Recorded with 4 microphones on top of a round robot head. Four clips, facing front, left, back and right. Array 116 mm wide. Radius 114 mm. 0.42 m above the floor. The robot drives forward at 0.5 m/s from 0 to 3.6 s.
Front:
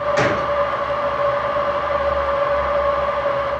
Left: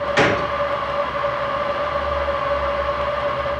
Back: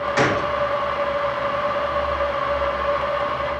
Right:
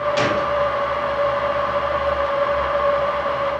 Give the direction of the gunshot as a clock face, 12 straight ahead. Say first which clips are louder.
Left 1 dB, back 1 dB; 9 o'clock.